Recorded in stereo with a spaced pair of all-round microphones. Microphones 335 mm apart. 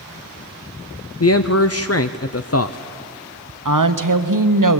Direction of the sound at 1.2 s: 45° left (ahead or behind).